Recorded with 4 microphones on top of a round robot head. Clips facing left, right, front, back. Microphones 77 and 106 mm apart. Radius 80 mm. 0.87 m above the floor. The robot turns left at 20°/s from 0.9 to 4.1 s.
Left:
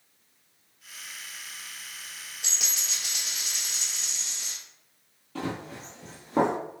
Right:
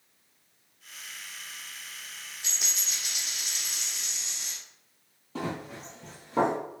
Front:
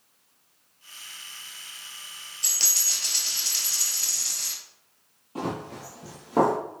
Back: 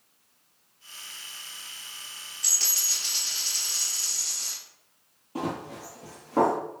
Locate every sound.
2.4 s a dropped coin: 55° left, 1.5 m; by 4.5 s 20° left, 1.5 m
5.3 s running footsteps: 135° right, 0.9 m; by 6.5 s 55° left, 1.0 m